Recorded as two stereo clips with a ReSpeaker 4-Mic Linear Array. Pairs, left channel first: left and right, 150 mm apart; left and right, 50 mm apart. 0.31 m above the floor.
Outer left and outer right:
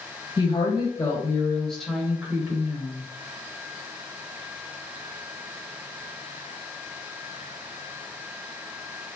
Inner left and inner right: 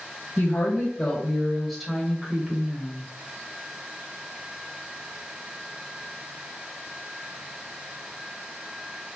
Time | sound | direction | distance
0.4 | a woman speaking | 35° left (ahead or behind) | 1.3 m